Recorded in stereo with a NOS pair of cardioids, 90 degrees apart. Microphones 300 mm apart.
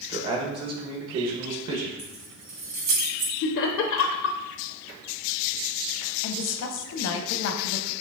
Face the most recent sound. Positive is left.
turn(degrees=55)